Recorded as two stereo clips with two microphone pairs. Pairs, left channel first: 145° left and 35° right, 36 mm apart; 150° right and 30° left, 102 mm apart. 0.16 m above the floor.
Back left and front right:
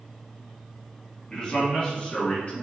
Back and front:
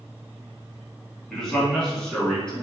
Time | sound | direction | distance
1.3 | a man speaking | 135° left | 1.6 m